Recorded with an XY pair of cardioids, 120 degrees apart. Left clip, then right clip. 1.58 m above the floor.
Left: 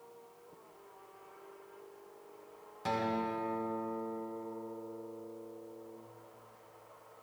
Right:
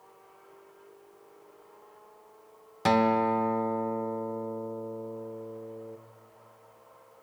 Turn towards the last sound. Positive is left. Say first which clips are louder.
# right 10 dB
turn(degrees=-65)